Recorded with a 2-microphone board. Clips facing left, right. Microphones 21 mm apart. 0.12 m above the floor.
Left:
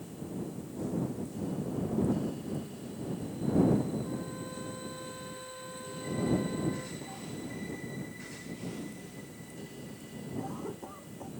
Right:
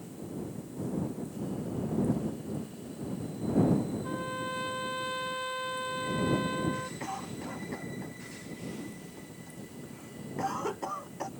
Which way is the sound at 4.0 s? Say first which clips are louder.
Right 4 dB; 65° right (ahead or behind).